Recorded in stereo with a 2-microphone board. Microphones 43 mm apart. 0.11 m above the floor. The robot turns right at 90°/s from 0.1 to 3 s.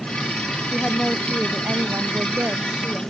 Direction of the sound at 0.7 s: 140° left.